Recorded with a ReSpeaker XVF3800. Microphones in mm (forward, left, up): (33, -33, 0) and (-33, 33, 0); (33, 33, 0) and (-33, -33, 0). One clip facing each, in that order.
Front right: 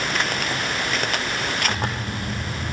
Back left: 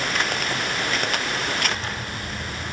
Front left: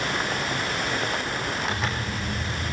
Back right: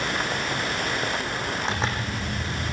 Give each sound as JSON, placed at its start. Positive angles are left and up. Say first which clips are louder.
{"t": 1.7, "sound": "a zipper", "louder": "front right 3 dB, back right 1 dB", "azimuth_deg": -75, "distance_m": 4.5}